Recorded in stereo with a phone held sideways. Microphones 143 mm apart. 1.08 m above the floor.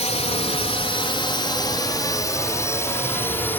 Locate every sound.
0.0 s a drone: 55° left (ahead or behind); by 3.6 s 15° left (ahead or behind)